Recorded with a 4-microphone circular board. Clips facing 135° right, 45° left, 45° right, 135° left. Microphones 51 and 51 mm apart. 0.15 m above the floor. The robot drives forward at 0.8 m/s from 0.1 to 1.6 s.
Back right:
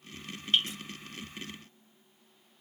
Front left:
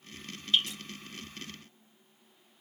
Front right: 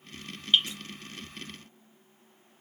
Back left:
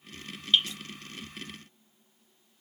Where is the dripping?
110° right, 2.5 m; by 0.8 s 115° right, 2.5 m.